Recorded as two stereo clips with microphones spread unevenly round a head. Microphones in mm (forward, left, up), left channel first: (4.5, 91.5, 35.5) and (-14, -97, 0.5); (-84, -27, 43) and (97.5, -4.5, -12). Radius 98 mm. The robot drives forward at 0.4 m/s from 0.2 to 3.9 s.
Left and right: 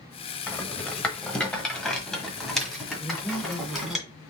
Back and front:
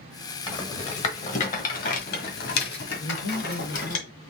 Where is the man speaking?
165° left, 0.8 m; by 4.2 s 170° left, 1.1 m.